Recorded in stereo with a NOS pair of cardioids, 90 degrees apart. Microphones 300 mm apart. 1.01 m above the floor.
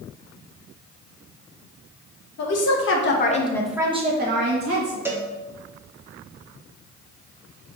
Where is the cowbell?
5° right, 0.9 m.